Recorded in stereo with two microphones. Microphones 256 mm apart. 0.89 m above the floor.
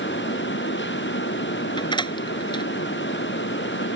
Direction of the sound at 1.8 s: 20° left (ahead or behind).